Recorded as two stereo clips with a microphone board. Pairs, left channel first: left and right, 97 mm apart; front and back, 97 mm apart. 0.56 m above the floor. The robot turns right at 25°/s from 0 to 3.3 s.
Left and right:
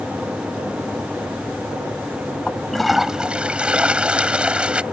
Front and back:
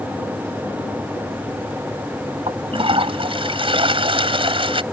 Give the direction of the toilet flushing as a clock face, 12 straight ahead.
6 o'clock.